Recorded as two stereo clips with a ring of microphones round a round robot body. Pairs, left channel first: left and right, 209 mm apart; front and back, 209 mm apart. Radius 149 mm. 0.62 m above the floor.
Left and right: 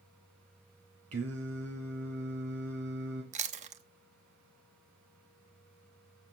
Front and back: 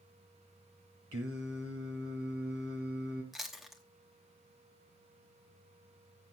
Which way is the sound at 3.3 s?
90° right.